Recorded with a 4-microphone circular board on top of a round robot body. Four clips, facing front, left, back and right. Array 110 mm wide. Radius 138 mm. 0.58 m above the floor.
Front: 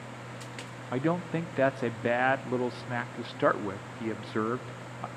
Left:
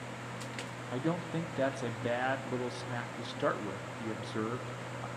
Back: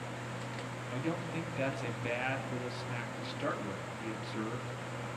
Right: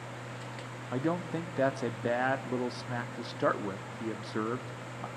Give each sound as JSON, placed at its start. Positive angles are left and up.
{"t": 0.9, "sound": "a man speaking", "azimuth_deg": -15, "distance_m": 1.2}